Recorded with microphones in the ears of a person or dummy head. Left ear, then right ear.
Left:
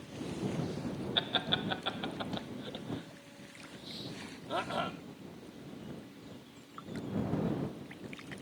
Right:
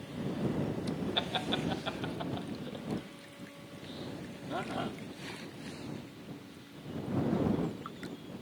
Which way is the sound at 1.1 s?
15° left (ahead or behind).